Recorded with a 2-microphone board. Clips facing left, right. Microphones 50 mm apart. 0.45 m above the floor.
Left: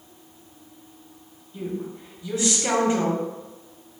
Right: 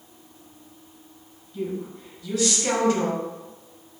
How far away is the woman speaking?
About 1.5 m.